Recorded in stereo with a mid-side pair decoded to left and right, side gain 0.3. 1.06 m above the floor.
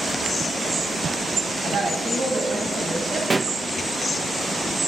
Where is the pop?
35° right, 0.7 m.